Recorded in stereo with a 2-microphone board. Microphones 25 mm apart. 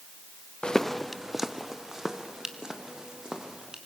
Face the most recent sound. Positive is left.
turn(degrees=-25)  # may be behind; listen again after turning